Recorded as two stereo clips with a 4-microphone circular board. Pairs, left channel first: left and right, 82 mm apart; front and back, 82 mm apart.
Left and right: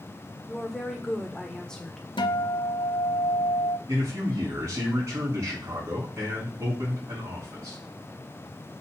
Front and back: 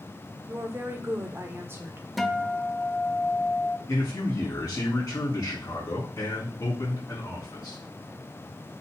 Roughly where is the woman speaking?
Behind.